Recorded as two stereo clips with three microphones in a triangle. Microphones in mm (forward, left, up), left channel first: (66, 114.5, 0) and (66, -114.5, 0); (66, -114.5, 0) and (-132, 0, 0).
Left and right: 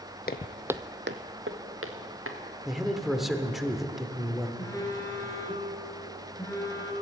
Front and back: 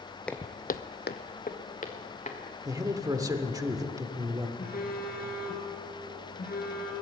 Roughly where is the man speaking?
Behind.